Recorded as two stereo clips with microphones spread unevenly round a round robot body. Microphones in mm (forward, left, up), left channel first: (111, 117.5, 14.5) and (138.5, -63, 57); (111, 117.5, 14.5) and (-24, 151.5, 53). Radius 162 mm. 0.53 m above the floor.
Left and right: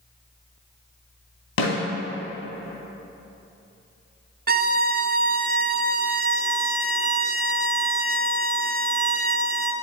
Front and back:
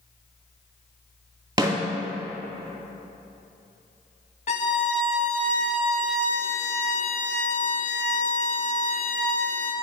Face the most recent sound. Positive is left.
turn(degrees=-35)